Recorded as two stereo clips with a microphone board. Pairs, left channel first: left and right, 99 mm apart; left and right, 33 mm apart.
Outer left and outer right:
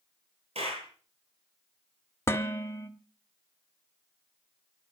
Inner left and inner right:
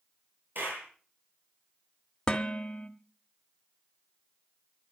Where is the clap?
80° right, 8.5 m.